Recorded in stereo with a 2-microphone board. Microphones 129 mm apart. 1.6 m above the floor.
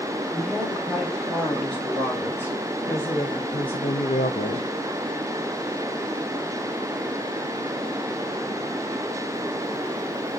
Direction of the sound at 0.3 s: 5° left (ahead or behind).